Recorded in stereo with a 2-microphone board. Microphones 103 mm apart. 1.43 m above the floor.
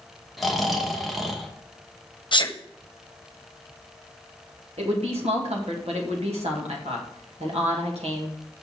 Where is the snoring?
Centre (ahead or behind), 1.2 m.